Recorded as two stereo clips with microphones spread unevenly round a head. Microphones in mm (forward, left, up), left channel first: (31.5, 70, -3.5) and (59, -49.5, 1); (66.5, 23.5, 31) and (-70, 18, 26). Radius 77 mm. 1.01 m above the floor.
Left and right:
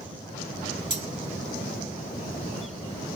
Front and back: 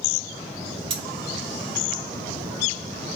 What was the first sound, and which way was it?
Cutlery clinking, 140° right.